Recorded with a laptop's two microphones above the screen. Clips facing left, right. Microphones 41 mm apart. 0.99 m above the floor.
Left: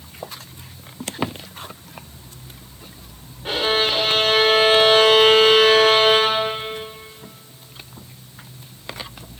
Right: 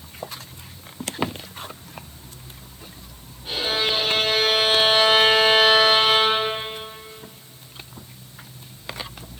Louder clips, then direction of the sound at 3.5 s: Left 4 dB; 60° left (ahead or behind).